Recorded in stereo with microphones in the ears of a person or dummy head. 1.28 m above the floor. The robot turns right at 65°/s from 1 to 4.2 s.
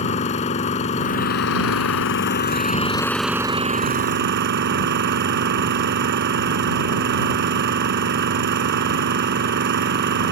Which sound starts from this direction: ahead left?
An engine running, at 0.0 s.